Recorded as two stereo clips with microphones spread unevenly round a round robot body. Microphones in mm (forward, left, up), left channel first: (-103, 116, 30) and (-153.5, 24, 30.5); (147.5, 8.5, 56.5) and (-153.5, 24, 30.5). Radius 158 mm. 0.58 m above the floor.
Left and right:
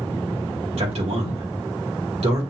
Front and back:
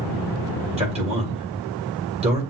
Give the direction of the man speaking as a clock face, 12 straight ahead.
4 o'clock.